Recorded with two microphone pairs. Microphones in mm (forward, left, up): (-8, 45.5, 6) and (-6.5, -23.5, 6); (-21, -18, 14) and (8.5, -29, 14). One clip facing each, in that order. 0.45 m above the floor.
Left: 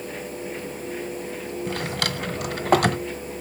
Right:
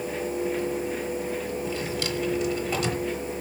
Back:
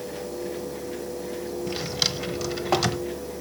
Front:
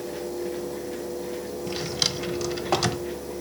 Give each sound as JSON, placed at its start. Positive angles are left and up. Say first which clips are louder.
{"t": 1.7, "sound": "a drawer", "louder": "left 1 dB, front 1 dB", "azimuth_deg": 75, "distance_m": 1.0}